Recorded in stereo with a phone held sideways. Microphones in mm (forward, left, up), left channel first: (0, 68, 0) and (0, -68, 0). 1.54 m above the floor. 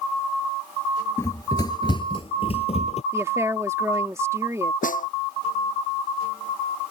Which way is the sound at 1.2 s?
20° left (ahead or behind).